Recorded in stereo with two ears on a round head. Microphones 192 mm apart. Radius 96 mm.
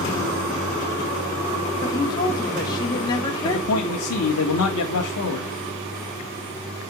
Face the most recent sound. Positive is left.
turn(degrees=85)